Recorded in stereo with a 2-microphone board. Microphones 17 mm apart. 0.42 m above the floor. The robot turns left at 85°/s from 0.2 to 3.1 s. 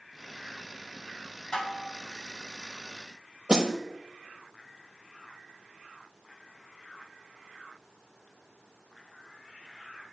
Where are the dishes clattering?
40° left, 2.5 m; by 1.9 s 10° left, 2.5 m.